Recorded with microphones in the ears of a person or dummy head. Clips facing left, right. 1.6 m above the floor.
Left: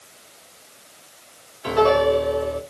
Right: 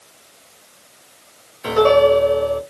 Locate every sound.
1.6 s a piano: 70° right (ahead or behind), 1.6 m